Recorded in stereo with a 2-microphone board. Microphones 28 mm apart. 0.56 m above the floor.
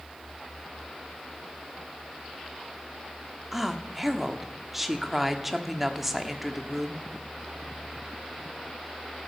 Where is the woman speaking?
10° right (ahead or behind), 1.2 m.